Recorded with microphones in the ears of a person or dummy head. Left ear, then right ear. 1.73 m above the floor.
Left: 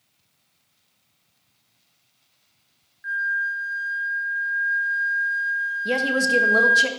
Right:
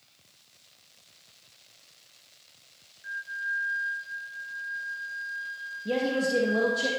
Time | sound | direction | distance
3.0 | a flute | 30° left (ahead or behind) | 0.6 m
5.8 | a woman speaking | 50° left (ahead or behind) | 1.0 m